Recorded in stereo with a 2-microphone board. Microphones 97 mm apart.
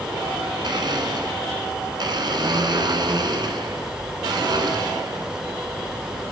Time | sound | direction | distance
0.6 | a blender | 50° right (ahead or behind) | 1.4 m